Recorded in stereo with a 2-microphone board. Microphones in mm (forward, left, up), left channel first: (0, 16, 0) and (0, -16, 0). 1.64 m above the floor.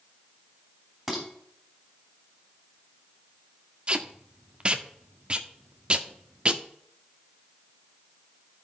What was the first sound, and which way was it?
Dishes clattering, centre (ahead or behind).